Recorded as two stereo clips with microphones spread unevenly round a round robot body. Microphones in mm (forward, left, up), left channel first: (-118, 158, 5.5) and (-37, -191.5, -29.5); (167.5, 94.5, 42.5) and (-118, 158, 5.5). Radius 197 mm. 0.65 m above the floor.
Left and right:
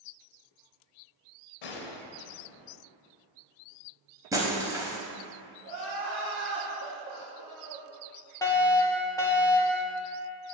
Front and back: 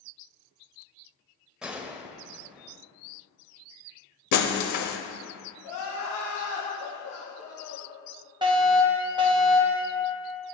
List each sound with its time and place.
1.6 s a gunshot: 80° left, 0.9 m
4.3 s breaking glass: 5° left, 1.0 m
5.6 s crying: 15° right, 3 m
8.4 s a fire alarm: 175° right, 1.5 m